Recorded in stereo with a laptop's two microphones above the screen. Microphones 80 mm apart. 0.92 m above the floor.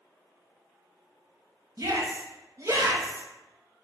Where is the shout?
40° right (ahead or behind), 1.4 m.